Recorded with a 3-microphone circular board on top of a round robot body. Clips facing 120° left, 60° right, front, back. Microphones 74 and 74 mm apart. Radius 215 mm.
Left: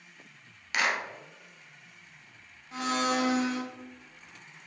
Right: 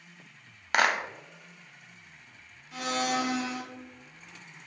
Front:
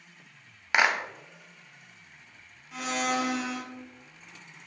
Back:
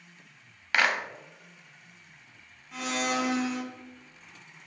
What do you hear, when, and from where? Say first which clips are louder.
0.7 s a clap: right 4 dB, front 1 dB; 70° right, 0.7 m
2.7 s a blender: left 1 dB, front 1 dB; 85° left, 1.4 m